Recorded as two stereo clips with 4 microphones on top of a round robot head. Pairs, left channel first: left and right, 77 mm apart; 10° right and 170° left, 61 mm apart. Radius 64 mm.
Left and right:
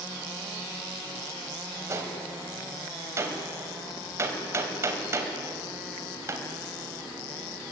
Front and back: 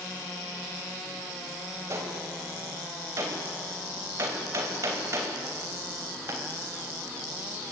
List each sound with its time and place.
1.9 s a gunshot: 145° right, 3.5 m